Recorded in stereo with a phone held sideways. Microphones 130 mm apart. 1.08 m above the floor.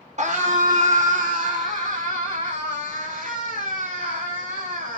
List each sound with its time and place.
0.2 s a scream: 55° right (ahead or behind), 2 m; by 5.0 s 70° right (ahead or behind), 8.5 m